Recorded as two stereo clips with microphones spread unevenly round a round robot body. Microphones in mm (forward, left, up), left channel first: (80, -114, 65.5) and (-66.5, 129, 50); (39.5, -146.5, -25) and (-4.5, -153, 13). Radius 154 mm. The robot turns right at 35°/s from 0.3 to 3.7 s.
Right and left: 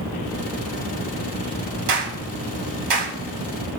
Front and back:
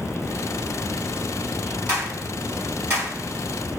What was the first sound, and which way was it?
A clap, 105° left.